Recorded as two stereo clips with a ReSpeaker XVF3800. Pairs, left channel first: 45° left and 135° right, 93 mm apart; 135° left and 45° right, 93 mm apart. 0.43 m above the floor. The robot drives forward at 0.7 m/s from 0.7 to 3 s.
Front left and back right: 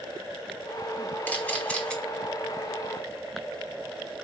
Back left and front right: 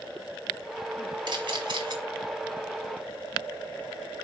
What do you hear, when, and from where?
1.3 s a camera shutter: 25° right, 2.5 m; by 2.0 s 35° right, 2.0 m